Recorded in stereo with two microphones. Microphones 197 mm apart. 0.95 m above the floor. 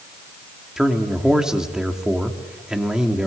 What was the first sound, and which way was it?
A man speaking, 5° right (ahead or behind).